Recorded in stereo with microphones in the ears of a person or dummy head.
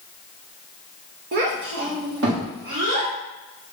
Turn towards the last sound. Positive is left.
turn(degrees=-70)  # may be behind; listen again after turning